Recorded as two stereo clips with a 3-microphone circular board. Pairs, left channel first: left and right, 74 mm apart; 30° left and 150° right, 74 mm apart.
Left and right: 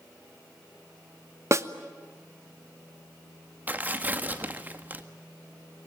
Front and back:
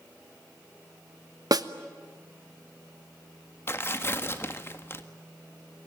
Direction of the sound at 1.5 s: 130° right.